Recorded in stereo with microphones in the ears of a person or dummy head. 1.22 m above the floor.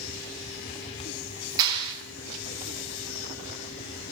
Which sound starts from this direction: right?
A clap, at 1.6 s.